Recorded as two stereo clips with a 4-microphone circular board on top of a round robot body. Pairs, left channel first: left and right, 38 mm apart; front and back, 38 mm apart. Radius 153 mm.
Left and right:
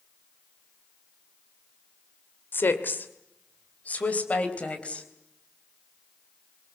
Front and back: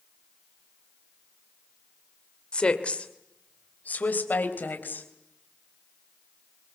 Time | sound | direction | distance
2.5 | a woman speaking | 65° left | 2.5 m